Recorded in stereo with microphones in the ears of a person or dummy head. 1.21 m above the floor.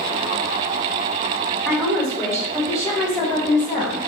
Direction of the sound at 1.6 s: 5° left (ahead or behind).